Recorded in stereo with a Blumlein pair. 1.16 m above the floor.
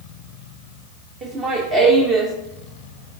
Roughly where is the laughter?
Ahead right.